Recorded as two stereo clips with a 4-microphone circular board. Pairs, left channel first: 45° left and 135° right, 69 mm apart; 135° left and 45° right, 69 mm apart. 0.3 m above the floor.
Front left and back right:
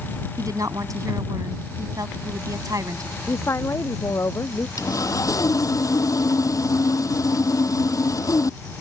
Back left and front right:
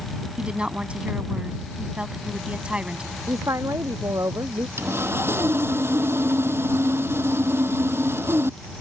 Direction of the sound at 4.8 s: 10° left.